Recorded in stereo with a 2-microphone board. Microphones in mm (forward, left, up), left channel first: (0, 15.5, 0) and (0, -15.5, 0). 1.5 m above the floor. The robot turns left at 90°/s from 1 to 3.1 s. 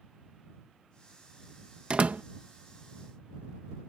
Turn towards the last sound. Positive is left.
turn(degrees=-150)